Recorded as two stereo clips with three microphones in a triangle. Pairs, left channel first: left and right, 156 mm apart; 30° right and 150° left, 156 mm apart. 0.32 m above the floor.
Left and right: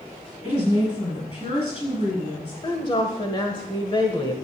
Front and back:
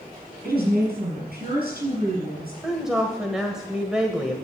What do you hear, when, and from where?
0.4 s a woman speaking: 135° left, 6.5 m
2.6 s a woman speaking: 65° left, 1.3 m